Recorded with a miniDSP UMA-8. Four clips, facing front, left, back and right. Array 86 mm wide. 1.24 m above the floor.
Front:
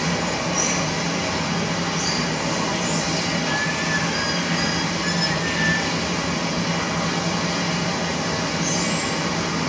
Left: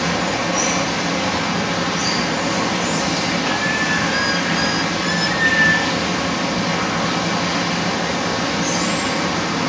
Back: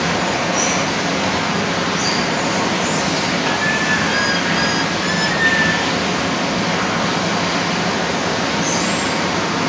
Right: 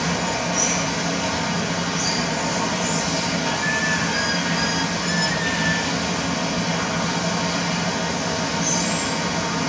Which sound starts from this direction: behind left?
Running water, at 0.0 s.